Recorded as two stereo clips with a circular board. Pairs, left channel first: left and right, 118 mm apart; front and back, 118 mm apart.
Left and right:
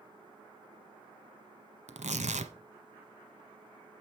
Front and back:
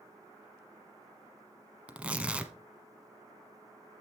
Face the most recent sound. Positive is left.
turn(degrees=-100)